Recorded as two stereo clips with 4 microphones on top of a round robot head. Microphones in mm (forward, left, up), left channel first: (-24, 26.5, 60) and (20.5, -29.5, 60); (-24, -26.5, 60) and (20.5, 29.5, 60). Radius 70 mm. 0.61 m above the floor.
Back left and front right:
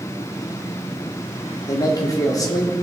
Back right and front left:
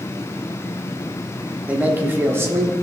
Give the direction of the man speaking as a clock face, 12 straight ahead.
8 o'clock.